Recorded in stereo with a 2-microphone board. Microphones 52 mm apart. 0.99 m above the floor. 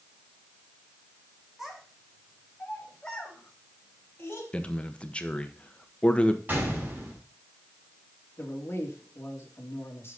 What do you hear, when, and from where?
1.6 s a child speaking: 5° right (ahead or behind), 4 m; by 4.4 s 40° left (ahead or behind), 3.5 m
4.5 s a man speaking: 20° left (ahead or behind), 1.1 m
6.5 s a gunshot: 35° right (ahead or behind), 5 m
8.4 s a man speaking: 45° left (ahead or behind), 2.5 m